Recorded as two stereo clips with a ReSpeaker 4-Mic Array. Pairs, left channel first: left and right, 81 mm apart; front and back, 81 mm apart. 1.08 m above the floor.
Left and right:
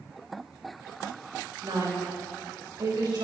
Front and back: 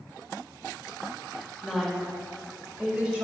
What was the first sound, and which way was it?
A woman speaking, 90° right.